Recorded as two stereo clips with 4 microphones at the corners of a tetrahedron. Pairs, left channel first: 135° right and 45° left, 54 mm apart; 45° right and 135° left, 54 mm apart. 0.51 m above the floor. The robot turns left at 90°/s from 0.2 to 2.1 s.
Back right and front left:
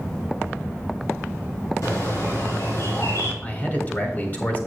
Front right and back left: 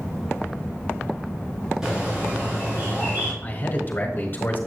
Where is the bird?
145° right, 3.5 m; by 3.3 s 170° right, 3.5 m.